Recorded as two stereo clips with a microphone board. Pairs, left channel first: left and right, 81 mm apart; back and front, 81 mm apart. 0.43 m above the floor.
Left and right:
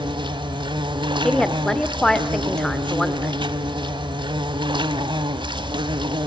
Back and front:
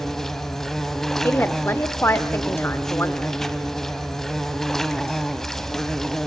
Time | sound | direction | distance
0.0 | an insect | 95° right | 0.9 m
1.2 | a woman speaking | 165° left | 1.2 m